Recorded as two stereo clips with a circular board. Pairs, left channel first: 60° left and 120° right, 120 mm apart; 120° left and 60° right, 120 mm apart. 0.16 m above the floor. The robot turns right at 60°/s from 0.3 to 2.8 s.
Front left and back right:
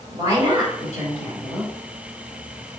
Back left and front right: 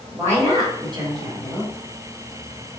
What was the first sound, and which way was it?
A woman speaking, 110° right.